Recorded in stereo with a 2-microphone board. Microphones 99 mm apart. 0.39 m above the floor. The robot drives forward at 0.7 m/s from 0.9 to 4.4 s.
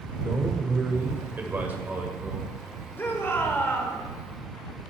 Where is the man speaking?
25° right (ahead or behind), 1.2 m; by 2.5 s 15° right (ahead or behind), 1.9 m.